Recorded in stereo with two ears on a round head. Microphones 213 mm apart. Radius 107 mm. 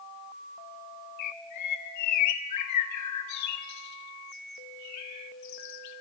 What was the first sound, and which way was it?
A bird, 80° left.